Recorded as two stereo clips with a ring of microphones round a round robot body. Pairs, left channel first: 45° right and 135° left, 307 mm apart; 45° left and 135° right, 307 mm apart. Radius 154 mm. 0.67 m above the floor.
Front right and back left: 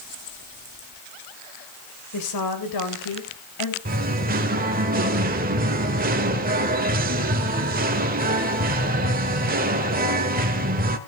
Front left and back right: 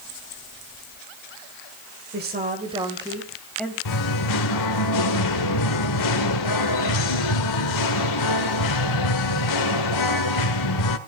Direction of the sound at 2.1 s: 80° right.